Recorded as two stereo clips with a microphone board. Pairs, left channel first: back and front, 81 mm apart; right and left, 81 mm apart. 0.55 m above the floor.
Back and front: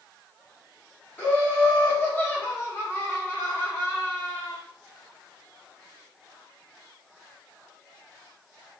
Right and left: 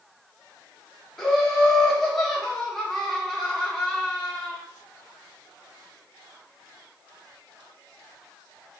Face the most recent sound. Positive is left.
turn(degrees=-175)